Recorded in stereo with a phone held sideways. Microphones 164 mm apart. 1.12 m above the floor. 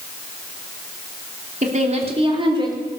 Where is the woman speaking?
50° right (ahead or behind), 3 m; by 2.8 s 25° right (ahead or behind), 3.5 m.